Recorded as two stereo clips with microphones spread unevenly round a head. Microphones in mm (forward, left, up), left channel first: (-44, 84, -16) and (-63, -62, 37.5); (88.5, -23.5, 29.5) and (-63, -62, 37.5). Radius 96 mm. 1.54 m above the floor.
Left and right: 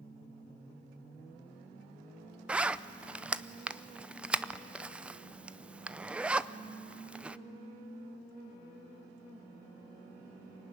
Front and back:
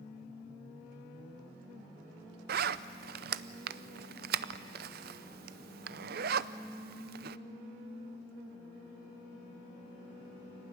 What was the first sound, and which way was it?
A zipper, 165° right.